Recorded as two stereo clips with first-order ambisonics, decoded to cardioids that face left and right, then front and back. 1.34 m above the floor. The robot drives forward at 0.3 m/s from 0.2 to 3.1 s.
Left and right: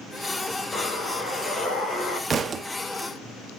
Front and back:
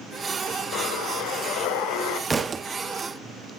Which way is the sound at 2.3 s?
120° right.